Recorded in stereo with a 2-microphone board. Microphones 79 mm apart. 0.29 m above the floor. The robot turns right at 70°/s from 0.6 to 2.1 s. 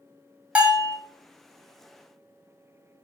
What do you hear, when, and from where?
0.6 s a bell: 15° right (ahead or behind), 1.0 m; by 1.0 s centre (ahead or behind), 1.0 m